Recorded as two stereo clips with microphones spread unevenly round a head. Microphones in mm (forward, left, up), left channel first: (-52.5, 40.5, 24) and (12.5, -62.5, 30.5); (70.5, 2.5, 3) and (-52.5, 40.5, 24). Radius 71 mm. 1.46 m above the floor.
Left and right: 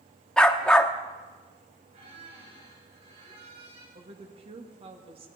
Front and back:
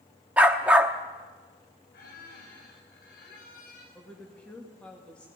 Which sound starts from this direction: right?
A woman speaking, at 4.0 s.